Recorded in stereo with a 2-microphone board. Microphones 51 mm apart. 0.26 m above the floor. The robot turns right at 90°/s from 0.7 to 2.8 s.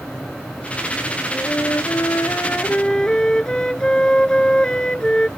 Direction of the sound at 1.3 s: 30° left.